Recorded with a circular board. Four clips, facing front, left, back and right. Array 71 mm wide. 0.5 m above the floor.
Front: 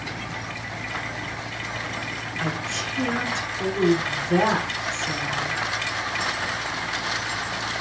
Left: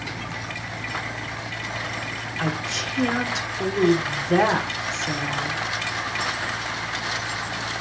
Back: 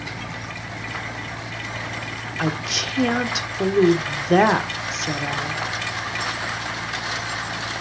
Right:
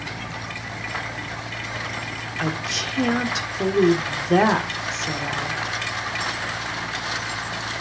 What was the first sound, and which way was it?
A woman speaking, 160° right.